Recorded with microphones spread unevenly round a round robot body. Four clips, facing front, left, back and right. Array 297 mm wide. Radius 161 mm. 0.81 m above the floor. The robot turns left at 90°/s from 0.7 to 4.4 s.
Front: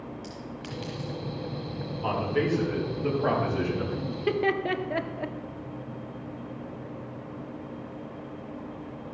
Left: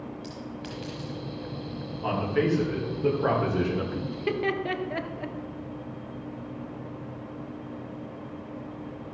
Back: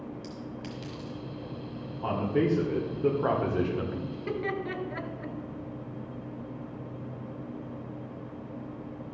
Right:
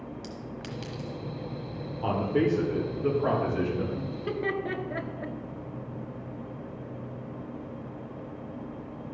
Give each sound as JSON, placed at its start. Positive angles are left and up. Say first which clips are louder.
{"t": 0.2, "sound": "a clink", "louder": "left 1 dB, even", "azimuth_deg": -130, "distance_m": 1.2}
{"t": 2.0, "sound": "a man speaking", "louder": "even, even", "azimuth_deg": -95, "distance_m": 2.0}
{"t": 4.1, "sound": "laughter", "louder": "left 3 dB, front 6 dB", "azimuth_deg": 40, "distance_m": 1.3}